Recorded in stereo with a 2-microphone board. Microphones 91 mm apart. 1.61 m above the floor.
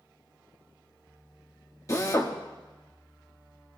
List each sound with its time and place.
1.9 s a drill: 35° left (ahead or behind), 1.5 m